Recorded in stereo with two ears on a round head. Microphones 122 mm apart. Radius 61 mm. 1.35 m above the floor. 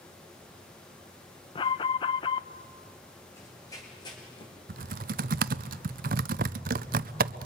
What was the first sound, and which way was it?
An alarm, 35° left (ahead or behind).